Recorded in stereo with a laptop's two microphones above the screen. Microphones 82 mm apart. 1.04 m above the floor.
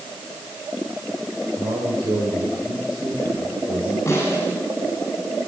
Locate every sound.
1.6 s a man speaking: 85° right, 4.5 m
4.1 s a snare drum: 30° left (ahead or behind), 10 m